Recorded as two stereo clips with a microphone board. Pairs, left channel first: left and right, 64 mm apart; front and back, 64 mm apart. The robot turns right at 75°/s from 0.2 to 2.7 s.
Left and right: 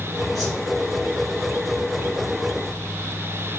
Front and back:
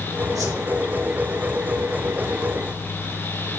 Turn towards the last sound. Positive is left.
turn(degrees=-10)